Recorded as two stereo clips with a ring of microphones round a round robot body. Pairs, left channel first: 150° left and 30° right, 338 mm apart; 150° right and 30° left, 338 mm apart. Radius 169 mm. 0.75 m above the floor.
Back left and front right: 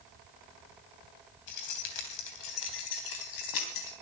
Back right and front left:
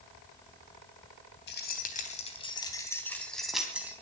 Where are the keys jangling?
150° left, 3 m; by 3.9 s 115° left, 3.5 m.